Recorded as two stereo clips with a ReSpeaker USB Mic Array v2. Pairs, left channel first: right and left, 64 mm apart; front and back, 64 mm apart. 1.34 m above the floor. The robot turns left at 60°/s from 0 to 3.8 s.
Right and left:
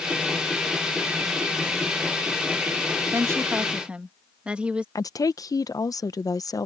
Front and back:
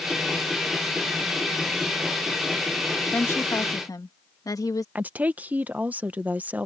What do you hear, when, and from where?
3.1 s a woman speaking: 60° left; by 4.8 s 15° left
5.0 s a woman speaking: 115° right